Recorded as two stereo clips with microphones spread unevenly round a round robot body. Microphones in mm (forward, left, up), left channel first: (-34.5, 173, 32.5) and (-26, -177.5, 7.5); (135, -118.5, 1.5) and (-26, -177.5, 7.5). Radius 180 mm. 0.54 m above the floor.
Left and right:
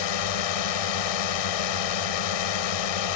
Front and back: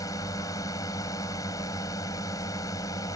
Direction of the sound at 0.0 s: 100° left.